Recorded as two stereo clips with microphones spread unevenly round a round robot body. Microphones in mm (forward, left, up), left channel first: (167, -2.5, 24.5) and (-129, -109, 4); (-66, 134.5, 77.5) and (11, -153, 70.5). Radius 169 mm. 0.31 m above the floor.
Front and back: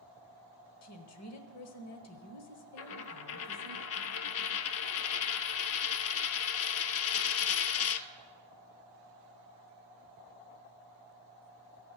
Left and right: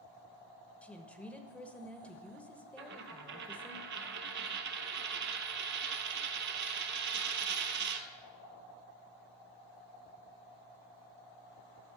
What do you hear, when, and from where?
0.8 s a woman speaking: 20° left, 1.1 m
2.8 s a dropped coin: 20° right, 0.5 m